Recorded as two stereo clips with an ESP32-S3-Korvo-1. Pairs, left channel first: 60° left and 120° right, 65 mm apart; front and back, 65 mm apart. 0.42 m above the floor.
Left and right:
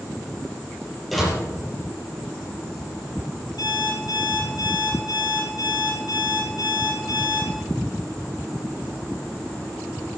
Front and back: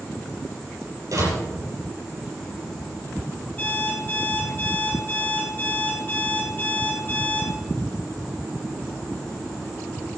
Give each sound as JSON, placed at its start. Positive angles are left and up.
{"t": 1.1, "sound": "a door slam", "azimuth_deg": 150, "distance_m": 6.0}
{"t": 3.6, "sound": "an alarm clock", "azimuth_deg": 70, "distance_m": 8.5}